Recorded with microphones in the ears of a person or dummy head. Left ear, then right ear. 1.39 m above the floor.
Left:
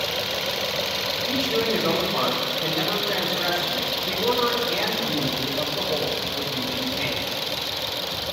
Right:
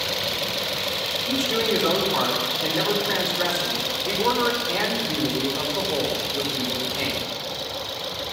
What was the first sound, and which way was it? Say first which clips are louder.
A man speaking: right 1 dB; 60° right (ahead or behind).